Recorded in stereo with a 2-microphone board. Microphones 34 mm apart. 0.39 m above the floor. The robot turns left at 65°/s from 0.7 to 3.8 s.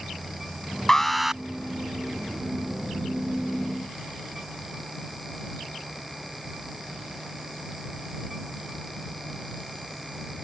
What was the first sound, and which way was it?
An alarm, 20° left.